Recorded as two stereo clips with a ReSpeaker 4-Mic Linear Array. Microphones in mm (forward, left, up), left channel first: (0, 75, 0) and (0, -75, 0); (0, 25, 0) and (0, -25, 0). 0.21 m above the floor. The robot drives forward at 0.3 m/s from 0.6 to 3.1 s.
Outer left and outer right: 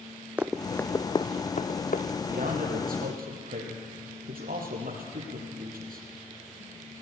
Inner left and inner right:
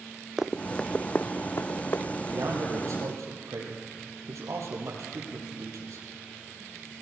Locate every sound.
0.4 s running footsteps: 10° right (ahead or behind), 0.8 m; by 2.1 s 70° left (ahead or behind), 1.2 m
2.3 s a man speaking: 75° right (ahead or behind), 5.5 m; by 6.1 s 80° right, 5.5 m